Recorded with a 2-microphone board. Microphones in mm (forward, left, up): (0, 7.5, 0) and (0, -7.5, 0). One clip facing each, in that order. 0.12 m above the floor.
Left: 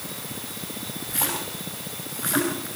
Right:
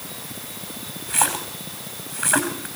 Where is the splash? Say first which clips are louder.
Right 6 dB; 50° right (ahead or behind), 4.5 m.